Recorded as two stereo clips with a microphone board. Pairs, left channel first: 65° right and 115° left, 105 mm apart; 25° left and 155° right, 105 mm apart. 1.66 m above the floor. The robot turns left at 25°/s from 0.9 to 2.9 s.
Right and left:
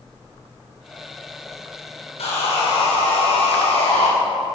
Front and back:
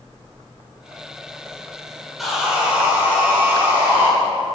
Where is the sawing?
65° right, 5 m; by 4.1 s 85° right, 5 m.